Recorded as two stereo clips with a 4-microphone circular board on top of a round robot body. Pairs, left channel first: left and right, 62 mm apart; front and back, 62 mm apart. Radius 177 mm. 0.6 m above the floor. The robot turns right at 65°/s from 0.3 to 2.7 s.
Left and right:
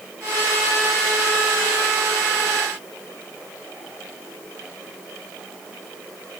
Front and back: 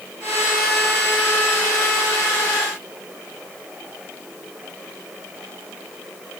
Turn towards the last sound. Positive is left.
No sound to turn to.